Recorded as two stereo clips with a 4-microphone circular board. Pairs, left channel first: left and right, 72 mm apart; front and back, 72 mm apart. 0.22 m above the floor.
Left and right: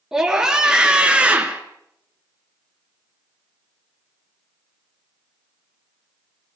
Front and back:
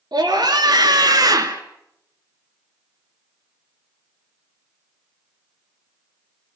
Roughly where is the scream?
Behind.